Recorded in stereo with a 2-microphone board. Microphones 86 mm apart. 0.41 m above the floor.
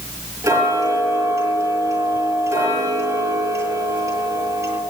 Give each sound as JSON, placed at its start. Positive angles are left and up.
{"t": 0.4, "sound": "ticking", "side_deg": -40, "distance_m": 7.0}